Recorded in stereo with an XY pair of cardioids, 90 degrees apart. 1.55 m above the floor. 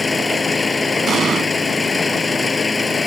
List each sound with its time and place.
0.0 s an engine running: 30° left
1.1 s an explosion: 60° right